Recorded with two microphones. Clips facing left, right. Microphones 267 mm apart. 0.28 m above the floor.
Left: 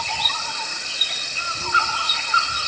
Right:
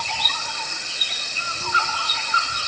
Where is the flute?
No flute in this recording.